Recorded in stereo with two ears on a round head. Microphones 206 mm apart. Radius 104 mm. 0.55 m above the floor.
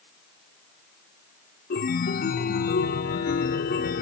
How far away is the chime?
About 0.6 m.